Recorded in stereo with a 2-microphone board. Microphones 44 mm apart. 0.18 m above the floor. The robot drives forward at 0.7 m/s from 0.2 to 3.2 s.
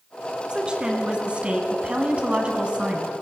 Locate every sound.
0.5 s a woman speaking: 20° right (ahead or behind), 1.7 m; by 3.1 s 25° right (ahead or behind), 1.4 m